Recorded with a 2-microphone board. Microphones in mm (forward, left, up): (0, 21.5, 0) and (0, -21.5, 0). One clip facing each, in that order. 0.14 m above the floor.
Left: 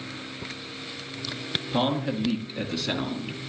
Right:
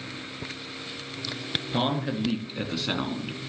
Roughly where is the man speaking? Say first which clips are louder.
Left 2 dB; centre.